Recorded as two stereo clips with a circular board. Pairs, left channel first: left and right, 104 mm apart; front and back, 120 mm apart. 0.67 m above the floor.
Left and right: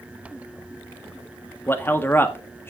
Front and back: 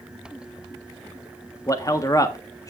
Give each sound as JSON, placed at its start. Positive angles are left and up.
{"t": 1.7, "sound": "a man speaking", "azimuth_deg": 35, "distance_m": 1.4}